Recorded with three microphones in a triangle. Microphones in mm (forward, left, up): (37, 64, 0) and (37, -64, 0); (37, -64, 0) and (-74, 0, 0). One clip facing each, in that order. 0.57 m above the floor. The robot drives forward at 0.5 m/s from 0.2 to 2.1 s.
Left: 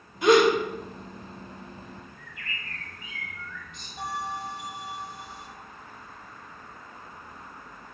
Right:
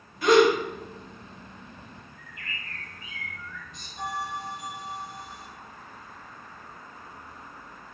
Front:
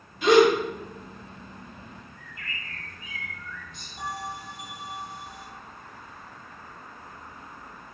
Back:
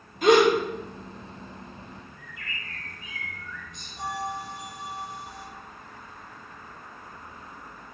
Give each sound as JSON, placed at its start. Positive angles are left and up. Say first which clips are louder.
{"t": 0.2, "sound": "a gasp", "louder": "even, front 1 dB", "azimuth_deg": 150, "distance_m": 0.7}
{"t": 2.2, "sound": "a bird", "louder": "left 1 dB, even", "azimuth_deg": -135, "distance_m": 1.0}
{"t": 4.0, "sound": "a bell", "louder": "even, back 3 dB", "azimuth_deg": 175, "distance_m": 1.5}